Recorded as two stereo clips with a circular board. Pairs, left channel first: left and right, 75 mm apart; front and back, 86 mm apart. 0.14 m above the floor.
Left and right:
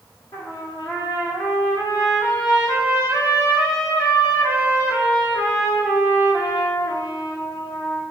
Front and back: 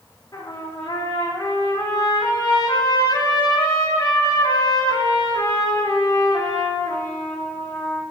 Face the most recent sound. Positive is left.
turn(degrees=50)